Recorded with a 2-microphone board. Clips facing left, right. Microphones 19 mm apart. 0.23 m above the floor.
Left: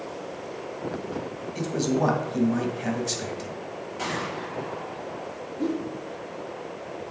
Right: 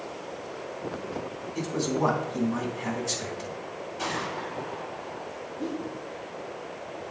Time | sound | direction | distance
1.6 | a man speaking | 20° left (ahead or behind) | 1.2 m
4.0 | a gunshot | 35° left (ahead or behind) | 3 m
5.6 | a whoosh | 55° left (ahead or behind) | 1.7 m